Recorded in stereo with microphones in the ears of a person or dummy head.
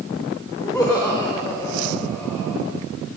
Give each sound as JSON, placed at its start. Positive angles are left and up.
{"t": 0.6, "sound": "laughter", "side_deg": 10, "distance_m": 3.5}